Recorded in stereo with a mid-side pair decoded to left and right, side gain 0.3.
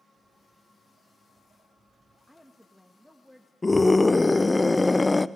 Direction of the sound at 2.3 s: 5° left.